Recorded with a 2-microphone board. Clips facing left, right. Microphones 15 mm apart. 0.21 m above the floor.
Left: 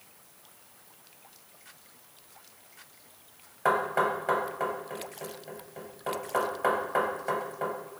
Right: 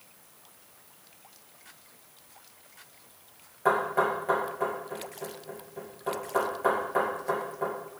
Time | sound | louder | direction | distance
3.6 | knocking | right 1 dB | 30° left (ahead or behind) | 2.5 m